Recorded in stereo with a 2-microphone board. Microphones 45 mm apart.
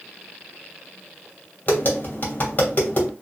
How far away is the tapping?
About 2.5 m.